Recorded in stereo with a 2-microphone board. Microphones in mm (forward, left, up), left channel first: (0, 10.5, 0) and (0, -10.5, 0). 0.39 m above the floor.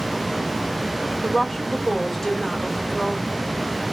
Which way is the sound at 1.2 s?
15° left (ahead or behind).